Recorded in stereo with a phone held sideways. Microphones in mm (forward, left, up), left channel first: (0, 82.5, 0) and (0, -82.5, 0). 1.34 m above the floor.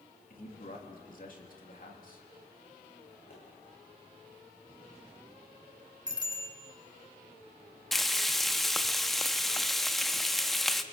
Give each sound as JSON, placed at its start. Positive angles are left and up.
{"t": 0.3, "sound": "a man speaking", "side_deg": 55, "distance_m": 3.0}
{"t": 3.3, "sound": "a pop", "side_deg": 70, "distance_m": 9.5}
{"t": 6.1, "sound": "a bicycle bell", "side_deg": -25, "distance_m": 3.5}
{"t": 7.9, "sound": "frying", "side_deg": 0, "distance_m": 0.9}